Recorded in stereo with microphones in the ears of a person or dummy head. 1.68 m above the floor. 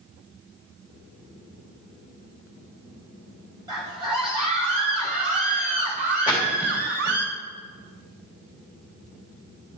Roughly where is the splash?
Centre.